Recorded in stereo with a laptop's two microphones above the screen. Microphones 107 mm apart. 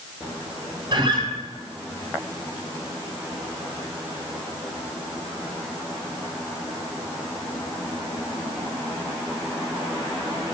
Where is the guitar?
40° right (ahead or behind), 4 m.